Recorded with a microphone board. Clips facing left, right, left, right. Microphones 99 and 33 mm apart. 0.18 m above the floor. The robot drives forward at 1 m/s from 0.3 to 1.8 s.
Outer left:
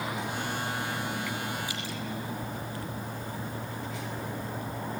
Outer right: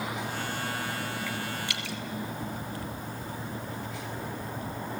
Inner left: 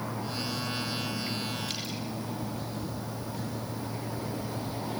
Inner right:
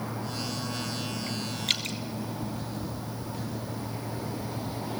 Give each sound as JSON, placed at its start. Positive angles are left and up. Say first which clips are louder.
{"t": 1.7, "sound": "dripping", "louder": "even, inner right 6 dB", "side_deg": -65, "distance_m": 1.9}